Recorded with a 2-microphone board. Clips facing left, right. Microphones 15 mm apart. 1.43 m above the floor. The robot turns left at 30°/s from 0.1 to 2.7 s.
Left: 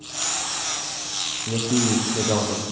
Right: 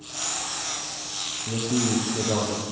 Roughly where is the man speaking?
Ahead left.